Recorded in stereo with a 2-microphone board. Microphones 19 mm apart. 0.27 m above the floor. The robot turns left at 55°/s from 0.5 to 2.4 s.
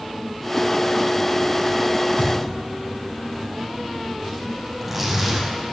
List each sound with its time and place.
2.2 s a thud: 75° left (ahead or behind), 5.5 m; by 2.6 s 65° left (ahead or behind), 5.5 m
4.7 s tearing paper: 10° right (ahead or behind), 6 m